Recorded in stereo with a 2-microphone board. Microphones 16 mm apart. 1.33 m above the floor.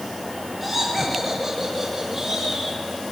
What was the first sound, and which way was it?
Laughter, centre (ahead or behind).